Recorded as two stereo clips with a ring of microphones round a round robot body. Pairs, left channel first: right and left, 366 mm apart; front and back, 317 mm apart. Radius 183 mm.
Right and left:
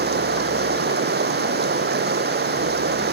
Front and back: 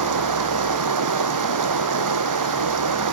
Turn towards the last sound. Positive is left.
turn(degrees=155)